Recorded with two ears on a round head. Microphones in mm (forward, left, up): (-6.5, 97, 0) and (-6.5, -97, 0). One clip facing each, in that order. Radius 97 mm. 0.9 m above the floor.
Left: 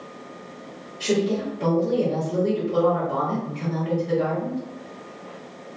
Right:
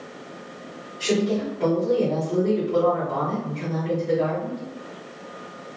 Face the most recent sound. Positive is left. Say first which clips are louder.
# even
turn(degrees=5)  # may be behind; listen again after turning